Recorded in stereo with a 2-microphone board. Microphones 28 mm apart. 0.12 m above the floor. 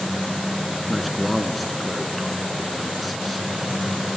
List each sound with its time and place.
0.9 s a man speaking: centre (ahead or behind), 1.1 m